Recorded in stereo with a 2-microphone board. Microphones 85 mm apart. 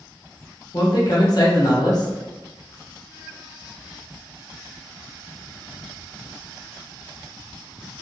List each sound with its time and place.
0.7 s a man speaking: 50° left (ahead or behind), 1.1 m